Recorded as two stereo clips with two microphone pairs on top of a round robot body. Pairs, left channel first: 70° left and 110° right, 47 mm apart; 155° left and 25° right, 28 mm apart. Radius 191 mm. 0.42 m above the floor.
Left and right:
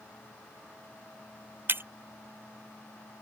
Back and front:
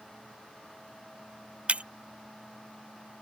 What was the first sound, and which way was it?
Breaking glass, 75° right.